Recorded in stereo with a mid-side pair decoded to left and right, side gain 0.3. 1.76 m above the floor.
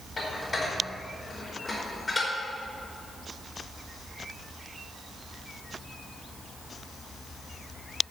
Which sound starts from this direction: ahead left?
Dishes clattering, at 0.2 s.